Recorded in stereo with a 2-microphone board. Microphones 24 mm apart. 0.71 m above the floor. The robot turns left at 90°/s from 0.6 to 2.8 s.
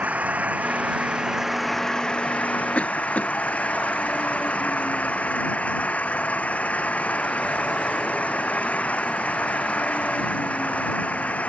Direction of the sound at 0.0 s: 85° right.